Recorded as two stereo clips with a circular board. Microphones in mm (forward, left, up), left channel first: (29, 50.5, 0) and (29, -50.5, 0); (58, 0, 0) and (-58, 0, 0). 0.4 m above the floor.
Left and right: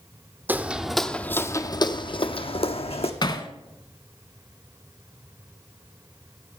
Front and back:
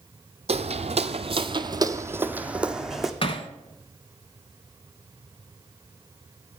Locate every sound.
0.5 s footsteps: 160° right, 0.7 m; by 3.1 s 90° left, 1.1 m
3.2 s hammering: 45° left, 0.9 m